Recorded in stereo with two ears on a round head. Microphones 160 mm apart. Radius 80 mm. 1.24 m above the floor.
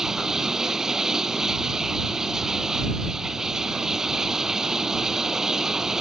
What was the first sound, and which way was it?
Running water, 5° right (ahead or behind).